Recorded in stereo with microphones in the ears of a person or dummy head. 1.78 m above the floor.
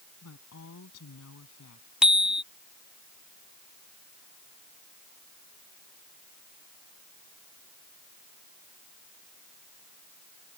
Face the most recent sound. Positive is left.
turn(degrees=-5)  # may be behind; listen again after turning